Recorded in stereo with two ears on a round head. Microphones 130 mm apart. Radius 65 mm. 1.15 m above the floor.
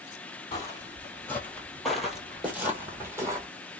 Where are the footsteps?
25° left (ahead or behind), 1.2 m; by 3.5 s 20° right (ahead or behind), 1.6 m.